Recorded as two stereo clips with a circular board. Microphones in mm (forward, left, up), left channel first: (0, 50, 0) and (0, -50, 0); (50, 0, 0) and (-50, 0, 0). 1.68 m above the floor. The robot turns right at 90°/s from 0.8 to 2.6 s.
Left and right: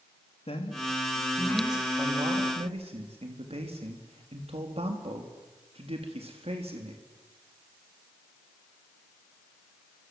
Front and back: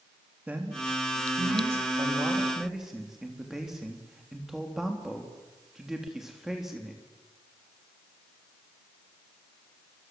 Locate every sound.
0.5 s a man speaking: 105° left, 3.5 m; by 7.0 s 95° right, 3.5 m